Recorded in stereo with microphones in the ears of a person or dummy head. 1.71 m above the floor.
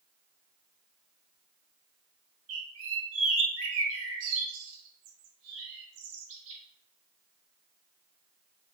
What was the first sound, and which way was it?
A bird, 80° right.